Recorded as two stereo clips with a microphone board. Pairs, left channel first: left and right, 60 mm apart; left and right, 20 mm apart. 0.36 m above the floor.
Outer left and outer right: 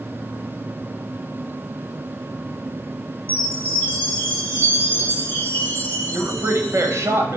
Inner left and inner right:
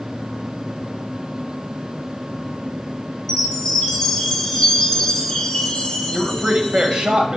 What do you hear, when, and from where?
3.3 s a chime: 25° left (ahead or behind), 3 m
6.1 s a man speaking: 55° right (ahead or behind), 1.4 m